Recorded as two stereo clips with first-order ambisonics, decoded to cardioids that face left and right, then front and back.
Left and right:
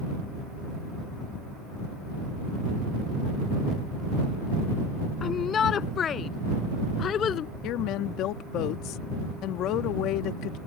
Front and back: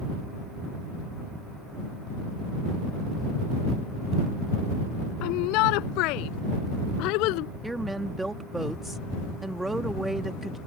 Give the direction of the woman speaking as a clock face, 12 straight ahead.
9 o'clock.